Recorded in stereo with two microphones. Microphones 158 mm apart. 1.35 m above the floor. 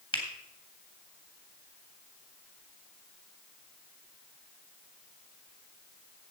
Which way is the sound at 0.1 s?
35° left (ahead or behind).